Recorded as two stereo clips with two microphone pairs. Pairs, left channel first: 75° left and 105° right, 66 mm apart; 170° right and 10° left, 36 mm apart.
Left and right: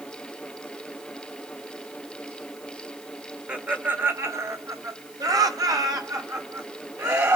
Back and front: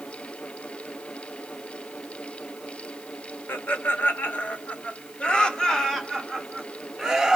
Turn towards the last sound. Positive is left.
turn(degrees=-70)